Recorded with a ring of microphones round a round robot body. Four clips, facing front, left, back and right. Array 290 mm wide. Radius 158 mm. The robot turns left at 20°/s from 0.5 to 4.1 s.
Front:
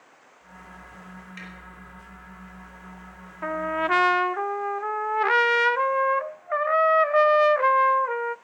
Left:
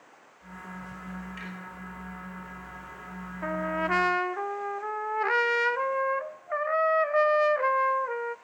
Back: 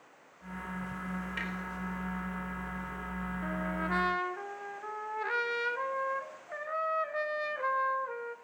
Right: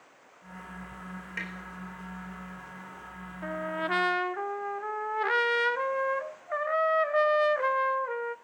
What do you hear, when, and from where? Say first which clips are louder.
1.4 s tapping: right 2 dB, back 4 dB; 120° right, 3.5 m; by 1.5 s 125° right, 3.5 m
3.4 s a trumpet: left 3 dB, front 11 dB; 20° left, 0.6 m; by 8.3 s 5° left, 0.6 m